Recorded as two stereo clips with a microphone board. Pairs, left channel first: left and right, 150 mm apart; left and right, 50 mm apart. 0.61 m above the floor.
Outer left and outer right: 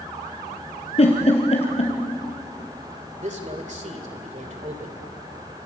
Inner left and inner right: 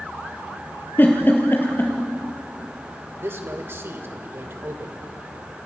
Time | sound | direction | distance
1.0 | a giggle | 45° left (ahead or behind) | 3.5 m
3.2 | a man speaking | 55° right (ahead or behind) | 2.5 m